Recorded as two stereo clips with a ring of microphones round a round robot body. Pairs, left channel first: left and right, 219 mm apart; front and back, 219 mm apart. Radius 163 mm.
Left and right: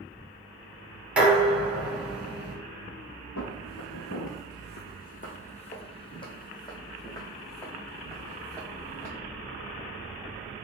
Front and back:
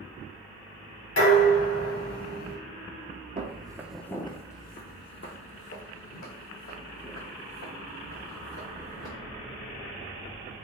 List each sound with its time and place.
1.2 s dishes clattering: 5° right, 1.8 m
3.4 s footsteps: 125° left, 0.6 m; by 9.1 s 10° left, 3 m